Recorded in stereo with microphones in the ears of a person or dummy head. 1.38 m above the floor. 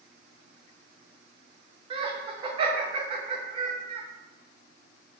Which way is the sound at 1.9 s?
35° right (ahead or behind).